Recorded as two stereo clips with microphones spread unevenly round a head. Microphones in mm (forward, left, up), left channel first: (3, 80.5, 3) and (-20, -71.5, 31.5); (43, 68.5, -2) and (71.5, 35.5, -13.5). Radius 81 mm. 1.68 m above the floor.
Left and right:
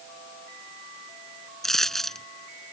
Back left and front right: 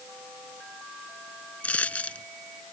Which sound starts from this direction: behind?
A dropped coin, at 1.6 s.